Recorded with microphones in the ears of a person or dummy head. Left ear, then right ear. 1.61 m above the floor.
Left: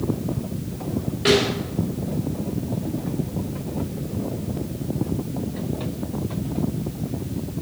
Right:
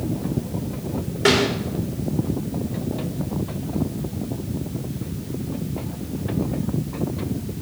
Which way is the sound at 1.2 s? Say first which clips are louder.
Right 1 dB; 35° right (ahead or behind).